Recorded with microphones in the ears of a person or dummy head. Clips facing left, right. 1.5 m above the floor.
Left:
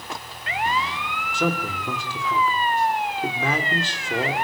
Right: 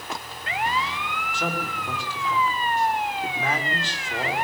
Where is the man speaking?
75° left (ahead or behind), 3.5 m.